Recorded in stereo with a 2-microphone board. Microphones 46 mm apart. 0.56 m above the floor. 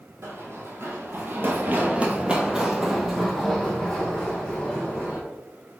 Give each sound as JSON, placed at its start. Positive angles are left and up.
{"t": 0.2, "sound": "running footsteps", "side_deg": -65, "distance_m": 1.2}